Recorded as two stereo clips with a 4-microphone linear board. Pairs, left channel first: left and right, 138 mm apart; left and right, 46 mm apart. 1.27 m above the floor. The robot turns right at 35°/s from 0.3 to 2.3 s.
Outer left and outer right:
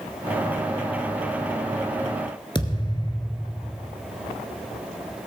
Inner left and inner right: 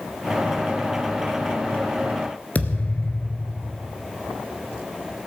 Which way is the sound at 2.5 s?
35° left (ahead or behind).